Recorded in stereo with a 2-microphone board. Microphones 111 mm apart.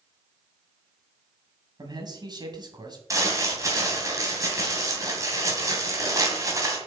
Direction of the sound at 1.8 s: 40° right (ahead or behind).